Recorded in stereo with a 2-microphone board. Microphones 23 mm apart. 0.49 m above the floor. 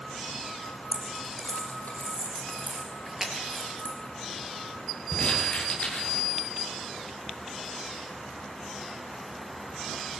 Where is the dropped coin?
85° left, 6 m.